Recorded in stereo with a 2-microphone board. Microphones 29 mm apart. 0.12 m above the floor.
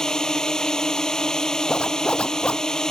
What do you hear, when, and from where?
0.0 s a drone: 25° left (ahead or behind)
1.7 s a zipper: 40° left (ahead or behind)